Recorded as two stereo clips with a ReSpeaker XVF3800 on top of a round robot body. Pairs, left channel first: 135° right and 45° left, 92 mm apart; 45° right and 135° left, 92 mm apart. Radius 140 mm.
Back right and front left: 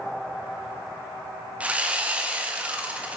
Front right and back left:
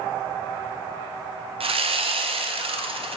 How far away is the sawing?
About 0.5 m.